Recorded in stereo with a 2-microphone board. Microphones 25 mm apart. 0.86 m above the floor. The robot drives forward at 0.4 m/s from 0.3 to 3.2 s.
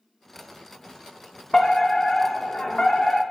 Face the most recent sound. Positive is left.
turn(degrees=30)  # may be behind; listen again after turning